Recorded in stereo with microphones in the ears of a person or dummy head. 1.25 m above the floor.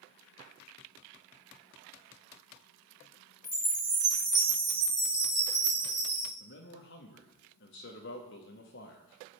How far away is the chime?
About 2 m.